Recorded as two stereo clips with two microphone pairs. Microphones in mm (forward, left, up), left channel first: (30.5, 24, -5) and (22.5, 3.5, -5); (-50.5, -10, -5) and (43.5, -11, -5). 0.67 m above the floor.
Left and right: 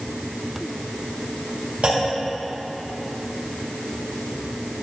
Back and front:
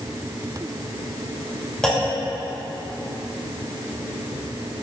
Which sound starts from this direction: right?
A clunk, at 1.8 s.